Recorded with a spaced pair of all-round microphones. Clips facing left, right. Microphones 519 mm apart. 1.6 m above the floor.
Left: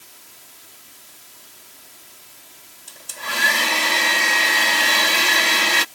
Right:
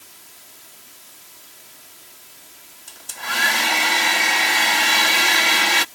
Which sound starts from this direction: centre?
A hair dryer, at 2.9 s.